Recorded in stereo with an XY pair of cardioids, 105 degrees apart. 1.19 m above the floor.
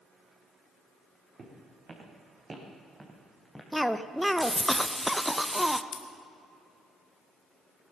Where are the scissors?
70° left, 1.6 m.